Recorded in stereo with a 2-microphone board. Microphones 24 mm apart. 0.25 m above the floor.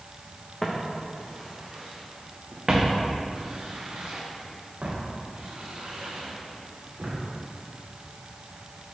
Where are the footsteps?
20° left (ahead or behind), 1.4 m; by 7.2 s 70° right (ahead or behind), 3.5 m.